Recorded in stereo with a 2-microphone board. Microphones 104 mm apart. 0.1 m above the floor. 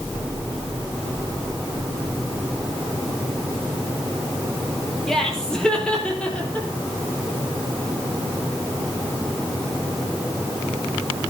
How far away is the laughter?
About 3 m.